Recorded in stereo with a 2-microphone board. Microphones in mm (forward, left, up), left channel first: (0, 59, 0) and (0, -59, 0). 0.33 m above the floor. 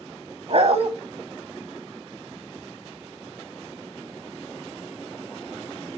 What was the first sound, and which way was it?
A dog barking, 60° right (ahead or behind).